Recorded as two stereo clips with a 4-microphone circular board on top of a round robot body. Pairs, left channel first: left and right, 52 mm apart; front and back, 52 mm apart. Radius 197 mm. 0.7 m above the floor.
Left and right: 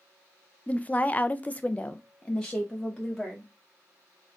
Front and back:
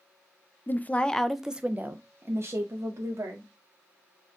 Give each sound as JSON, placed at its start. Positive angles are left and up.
{"t": 0.7, "sound": "a woman speaking", "azimuth_deg": 35, "distance_m": 0.7}